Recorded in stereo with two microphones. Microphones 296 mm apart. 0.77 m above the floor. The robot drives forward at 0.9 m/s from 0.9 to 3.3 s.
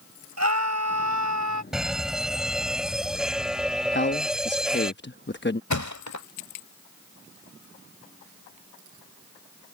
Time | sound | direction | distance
0.4 | a scream | 60° right (ahead or behind) | ?
1.7 | a fire alarm | centre (ahead or behind) | ?
3.9 | a man speaking | 35° left (ahead or behind) | ?
5.7 | a thud | 70° left (ahead or behind) | ?